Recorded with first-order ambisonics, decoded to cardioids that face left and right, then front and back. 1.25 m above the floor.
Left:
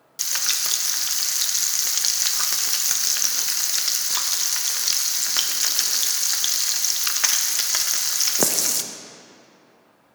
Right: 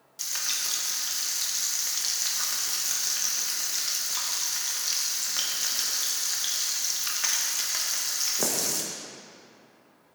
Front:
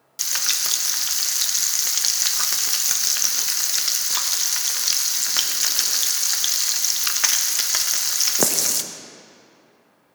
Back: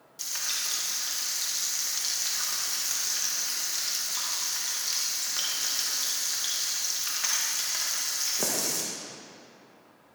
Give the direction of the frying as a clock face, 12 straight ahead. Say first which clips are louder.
Left 6 dB, front 8 dB; 11 o'clock.